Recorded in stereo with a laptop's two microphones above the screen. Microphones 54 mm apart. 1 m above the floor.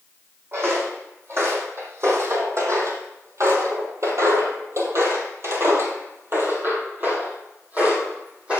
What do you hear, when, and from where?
0.5 s footsteps: 45° right (ahead or behind), 3 m; by 8.6 s 20° right (ahead or behind), 2.5 m